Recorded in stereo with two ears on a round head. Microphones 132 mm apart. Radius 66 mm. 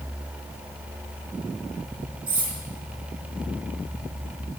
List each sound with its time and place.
2.3 s cutlery clinking: 60° right (ahead or behind), 4 m